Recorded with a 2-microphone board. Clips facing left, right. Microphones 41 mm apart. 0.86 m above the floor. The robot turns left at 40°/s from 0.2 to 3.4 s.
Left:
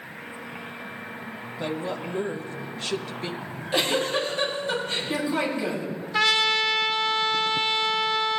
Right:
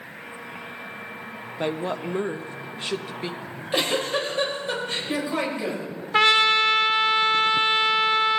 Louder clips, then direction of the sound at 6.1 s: Right 4 dB; 40° right (ahead or behind).